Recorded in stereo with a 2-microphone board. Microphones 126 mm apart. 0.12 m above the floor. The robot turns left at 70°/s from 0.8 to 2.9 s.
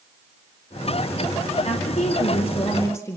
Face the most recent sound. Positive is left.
turn(degrees=25)